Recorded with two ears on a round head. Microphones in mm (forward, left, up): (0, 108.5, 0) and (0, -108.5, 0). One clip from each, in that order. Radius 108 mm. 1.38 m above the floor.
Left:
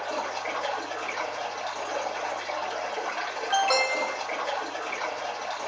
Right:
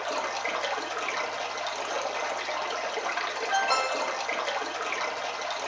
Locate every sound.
0.0 s running water: 30° right (ahead or behind), 0.8 m
3.5 s an alarm: 15° left (ahead or behind), 0.5 m